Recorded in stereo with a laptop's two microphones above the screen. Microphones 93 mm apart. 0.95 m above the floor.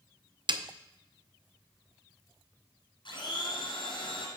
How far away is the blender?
About 2.5 m.